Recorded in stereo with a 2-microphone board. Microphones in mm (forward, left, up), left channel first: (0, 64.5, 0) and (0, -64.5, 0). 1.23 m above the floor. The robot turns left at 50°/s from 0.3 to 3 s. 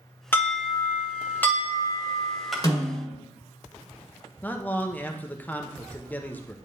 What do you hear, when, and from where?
0.3 s an alarm: 15° left (ahead or behind), 1.2 m; by 2.5 s centre (ahead or behind), 1.2 m
2.6 s a snare drum: 30° left (ahead or behind), 2.0 m; by 3.2 s 45° left (ahead or behind), 2.0 m
4.4 s a man speaking: 15° left (ahead or behind), 0.8 m